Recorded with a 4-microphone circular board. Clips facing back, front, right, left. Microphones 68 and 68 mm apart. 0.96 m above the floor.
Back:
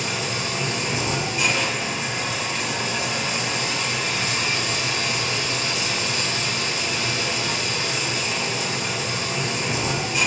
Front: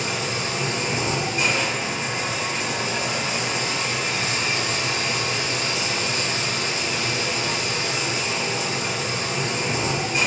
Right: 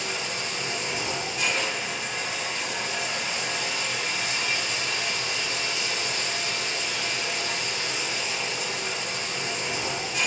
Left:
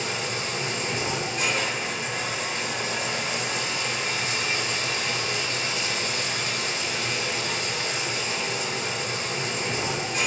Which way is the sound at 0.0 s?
50° left.